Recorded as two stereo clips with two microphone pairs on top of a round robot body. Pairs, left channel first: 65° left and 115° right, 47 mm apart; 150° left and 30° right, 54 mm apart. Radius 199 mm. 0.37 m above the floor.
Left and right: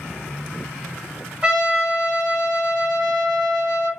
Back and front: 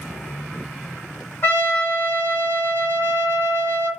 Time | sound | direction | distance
1.4 | a trumpet | 170° right | 1.4 m